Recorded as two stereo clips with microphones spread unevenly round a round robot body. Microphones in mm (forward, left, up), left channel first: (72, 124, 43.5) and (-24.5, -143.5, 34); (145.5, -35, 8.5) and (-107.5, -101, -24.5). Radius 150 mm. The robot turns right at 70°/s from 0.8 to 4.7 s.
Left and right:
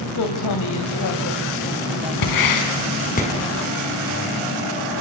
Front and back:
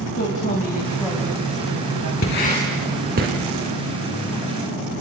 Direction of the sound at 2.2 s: 65° left.